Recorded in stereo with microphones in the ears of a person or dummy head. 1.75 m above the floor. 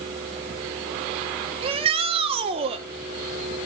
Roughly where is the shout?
Right.